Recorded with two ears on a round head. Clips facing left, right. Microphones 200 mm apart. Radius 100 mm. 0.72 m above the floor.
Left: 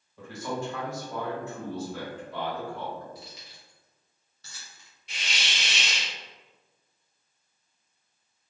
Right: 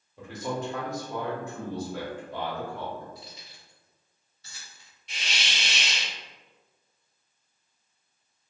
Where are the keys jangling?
60° left (ahead or behind), 0.9 m.